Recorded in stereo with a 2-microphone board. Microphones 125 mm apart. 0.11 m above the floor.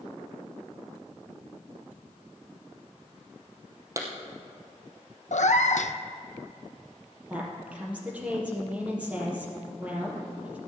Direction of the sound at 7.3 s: 10° right (ahead or behind).